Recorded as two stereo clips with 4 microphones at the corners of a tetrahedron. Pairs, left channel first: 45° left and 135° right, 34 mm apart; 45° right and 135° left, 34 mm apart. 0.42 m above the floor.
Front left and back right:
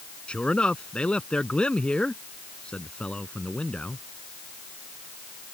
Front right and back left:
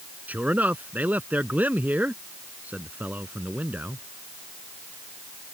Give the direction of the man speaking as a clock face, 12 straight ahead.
9 o'clock.